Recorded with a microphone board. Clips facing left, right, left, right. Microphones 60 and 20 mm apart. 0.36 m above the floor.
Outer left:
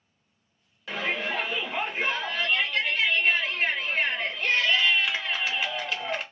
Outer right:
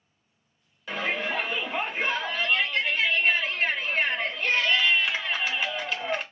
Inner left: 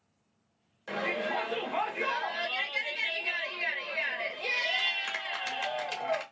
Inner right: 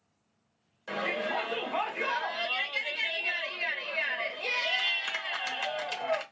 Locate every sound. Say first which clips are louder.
0.9 s a shout: outer right 1 dB, even; centre (ahead or behind), 1.0 m